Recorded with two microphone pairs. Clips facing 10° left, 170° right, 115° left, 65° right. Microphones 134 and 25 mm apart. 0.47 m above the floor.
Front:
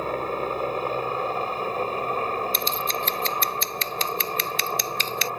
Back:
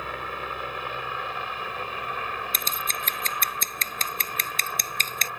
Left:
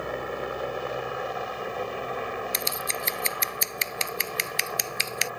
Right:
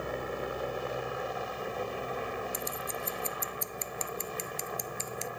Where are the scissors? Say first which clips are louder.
Front 6 dB, left 7 dB; 145° left.